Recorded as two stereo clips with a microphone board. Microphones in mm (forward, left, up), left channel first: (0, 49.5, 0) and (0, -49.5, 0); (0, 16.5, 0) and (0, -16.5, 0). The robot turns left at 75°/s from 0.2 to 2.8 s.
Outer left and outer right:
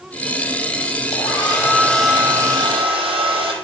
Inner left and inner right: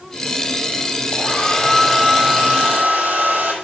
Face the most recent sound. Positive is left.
turn(degrees=-60)